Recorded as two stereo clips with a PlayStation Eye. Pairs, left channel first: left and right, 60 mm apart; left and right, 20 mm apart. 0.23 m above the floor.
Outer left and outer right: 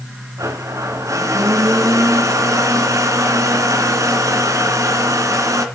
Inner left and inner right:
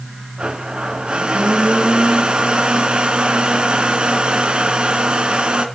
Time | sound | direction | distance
0.4 | a blender | 60° right (ahead or behind) | 3 m